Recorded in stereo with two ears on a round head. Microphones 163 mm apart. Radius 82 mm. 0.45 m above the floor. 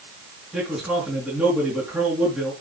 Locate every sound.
0.5 s a man speaking: 5° right (ahead or behind), 5.5 m